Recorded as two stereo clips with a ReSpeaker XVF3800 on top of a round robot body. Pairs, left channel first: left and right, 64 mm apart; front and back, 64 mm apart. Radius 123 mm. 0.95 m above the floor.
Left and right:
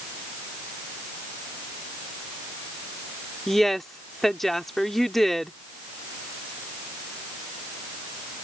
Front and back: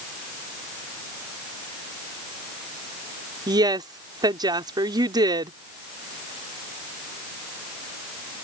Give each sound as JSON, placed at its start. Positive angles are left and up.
{"t": 3.5, "sound": "a woman speaking", "azimuth_deg": 175}